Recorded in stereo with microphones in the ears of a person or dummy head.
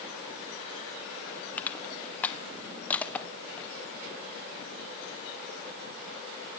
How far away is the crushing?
About 1.4 m.